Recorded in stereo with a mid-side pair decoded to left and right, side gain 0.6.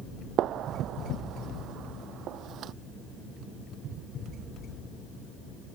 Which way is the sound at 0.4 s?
55° right.